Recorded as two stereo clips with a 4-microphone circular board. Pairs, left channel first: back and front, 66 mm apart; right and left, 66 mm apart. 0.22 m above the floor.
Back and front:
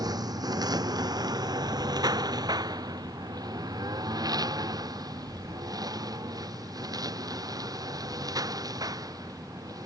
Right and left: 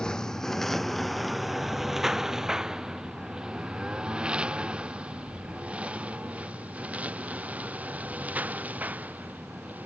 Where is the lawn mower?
10° right; by 9.9 s 25° left.